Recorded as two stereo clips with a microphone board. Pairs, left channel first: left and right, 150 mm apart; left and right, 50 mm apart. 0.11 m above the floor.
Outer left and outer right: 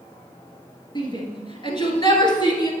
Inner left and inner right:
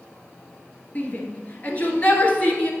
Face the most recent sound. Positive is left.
turn(degrees=30)  # may be behind; listen again after turning